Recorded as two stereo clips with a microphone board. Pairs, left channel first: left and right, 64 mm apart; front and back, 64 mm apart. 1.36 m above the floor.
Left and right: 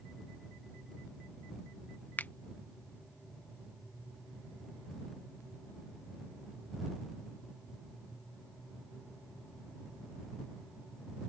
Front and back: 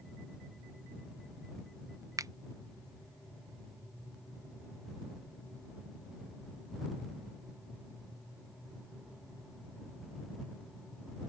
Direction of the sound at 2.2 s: 155° left.